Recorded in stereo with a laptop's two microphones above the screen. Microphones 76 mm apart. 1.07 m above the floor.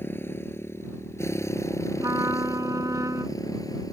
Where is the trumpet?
45° right (ahead or behind).